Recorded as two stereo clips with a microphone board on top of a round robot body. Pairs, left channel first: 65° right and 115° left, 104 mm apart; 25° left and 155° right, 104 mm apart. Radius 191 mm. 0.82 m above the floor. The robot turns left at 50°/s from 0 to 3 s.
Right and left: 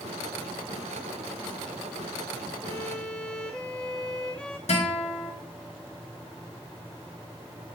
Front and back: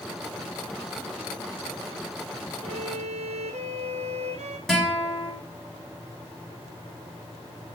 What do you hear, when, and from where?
2.6 s a violin: 130° right, 1.9 m; by 4.6 s 150° right, 1.9 m
4.7 s a guitar: 65° right, 7 m